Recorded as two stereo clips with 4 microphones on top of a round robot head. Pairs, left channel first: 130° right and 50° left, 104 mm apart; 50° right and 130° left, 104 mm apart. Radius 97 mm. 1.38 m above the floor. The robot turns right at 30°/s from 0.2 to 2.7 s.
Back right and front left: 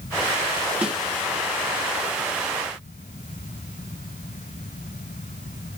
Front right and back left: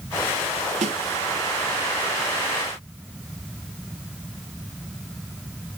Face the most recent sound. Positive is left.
turn(degrees=-170)